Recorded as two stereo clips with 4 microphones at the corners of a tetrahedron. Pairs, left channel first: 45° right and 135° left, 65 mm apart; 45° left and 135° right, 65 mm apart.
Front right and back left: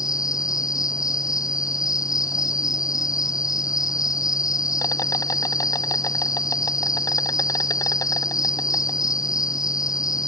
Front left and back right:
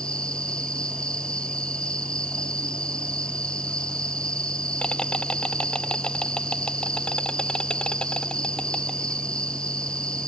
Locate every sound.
0.0 s an insect: 30° right